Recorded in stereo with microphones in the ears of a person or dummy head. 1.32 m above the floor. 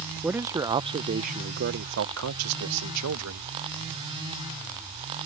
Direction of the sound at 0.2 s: 5° right (ahead or behind).